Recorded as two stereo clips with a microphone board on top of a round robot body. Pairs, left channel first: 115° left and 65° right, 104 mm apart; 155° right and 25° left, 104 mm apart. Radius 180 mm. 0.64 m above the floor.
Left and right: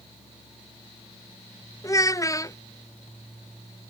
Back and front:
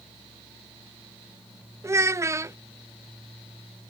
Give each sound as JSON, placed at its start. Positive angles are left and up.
{"t": 1.8, "sound": "a child speaking", "azimuth_deg": 70}